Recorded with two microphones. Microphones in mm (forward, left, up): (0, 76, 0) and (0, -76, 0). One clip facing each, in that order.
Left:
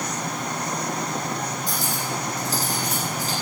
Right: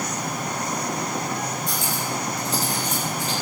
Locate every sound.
1.7 s cutlery clinking: 35° left (ahead or behind), 6.5 m